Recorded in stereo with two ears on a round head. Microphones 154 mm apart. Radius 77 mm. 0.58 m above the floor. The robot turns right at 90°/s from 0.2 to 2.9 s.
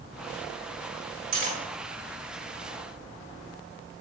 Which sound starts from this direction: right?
Cutlery clinking, at 1.3 s.